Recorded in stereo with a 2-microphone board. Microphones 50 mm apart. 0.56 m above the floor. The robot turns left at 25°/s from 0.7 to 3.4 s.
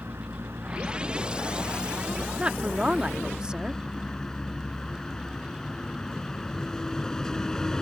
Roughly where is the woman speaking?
Right.